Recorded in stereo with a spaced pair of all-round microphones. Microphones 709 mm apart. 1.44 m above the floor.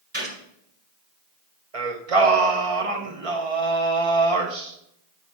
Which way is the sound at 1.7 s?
50° right (ahead or behind).